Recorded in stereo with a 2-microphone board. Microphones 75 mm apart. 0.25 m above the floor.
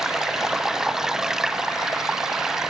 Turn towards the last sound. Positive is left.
turn(degrees=-5)  # may be behind; listen again after turning